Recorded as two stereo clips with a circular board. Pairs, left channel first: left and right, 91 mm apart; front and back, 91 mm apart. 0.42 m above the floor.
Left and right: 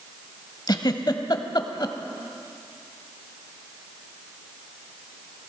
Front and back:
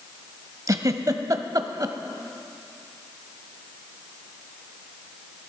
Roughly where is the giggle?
Behind left.